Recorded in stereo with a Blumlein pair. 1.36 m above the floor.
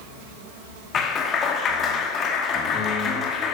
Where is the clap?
25° left, 2 m.